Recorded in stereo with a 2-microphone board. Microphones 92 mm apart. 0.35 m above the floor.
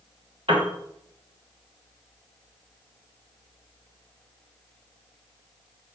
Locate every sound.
0.5 s a piano: 65° right (ahead or behind), 2 m